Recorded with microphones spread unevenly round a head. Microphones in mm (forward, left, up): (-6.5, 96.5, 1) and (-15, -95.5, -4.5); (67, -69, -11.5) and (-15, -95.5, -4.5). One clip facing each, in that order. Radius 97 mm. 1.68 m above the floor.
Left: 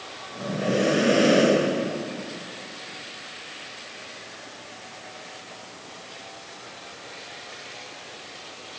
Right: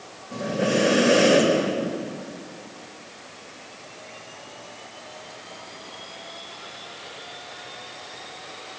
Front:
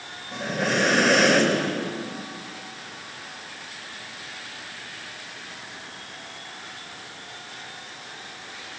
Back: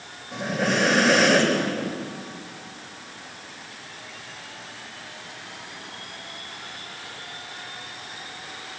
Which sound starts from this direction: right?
Breathing, at 0.3 s.